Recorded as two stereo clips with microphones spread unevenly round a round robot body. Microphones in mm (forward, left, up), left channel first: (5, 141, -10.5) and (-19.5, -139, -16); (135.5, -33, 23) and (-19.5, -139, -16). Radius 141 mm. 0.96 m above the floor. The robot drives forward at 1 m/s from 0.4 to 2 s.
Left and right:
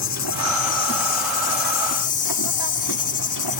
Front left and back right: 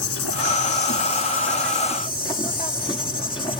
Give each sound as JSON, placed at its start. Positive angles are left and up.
{"t": 0.0, "sound": "an insect", "azimuth_deg": 50}